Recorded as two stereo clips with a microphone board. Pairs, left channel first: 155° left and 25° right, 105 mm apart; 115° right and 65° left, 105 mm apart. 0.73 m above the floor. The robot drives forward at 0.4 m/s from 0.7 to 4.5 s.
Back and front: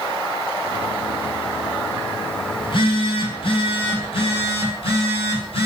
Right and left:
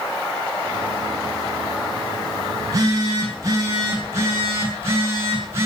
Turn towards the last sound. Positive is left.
turn(degrees=130)